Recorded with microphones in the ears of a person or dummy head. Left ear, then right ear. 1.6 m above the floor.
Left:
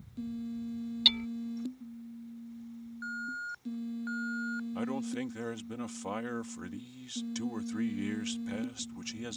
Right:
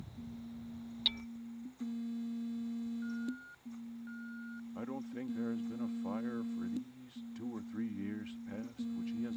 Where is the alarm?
50° left (ahead or behind).